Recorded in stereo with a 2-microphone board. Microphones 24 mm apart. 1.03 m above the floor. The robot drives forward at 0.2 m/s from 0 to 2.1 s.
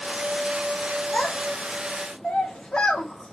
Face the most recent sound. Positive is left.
turn(degrees=45)  # may be behind; listen again after turning